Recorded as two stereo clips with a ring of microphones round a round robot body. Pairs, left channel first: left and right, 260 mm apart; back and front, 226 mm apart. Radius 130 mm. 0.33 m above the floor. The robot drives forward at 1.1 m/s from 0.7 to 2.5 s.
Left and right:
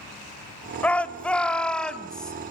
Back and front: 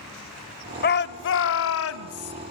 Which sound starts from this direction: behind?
A shout, at 0.8 s.